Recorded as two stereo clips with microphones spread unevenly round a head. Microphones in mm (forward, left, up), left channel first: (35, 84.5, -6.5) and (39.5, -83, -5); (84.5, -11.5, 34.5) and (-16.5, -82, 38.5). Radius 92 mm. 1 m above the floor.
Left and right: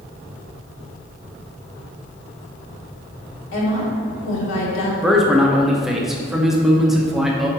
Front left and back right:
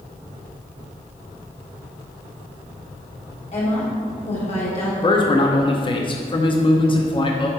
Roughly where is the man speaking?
Ahead.